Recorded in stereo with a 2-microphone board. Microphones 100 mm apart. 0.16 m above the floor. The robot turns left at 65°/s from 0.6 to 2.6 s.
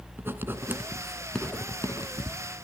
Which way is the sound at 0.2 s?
25° right (ahead or behind).